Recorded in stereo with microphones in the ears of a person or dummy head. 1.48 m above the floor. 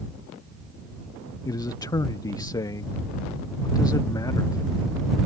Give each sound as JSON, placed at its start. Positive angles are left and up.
{"t": 1.4, "sound": "a man speaking", "side_deg": 15}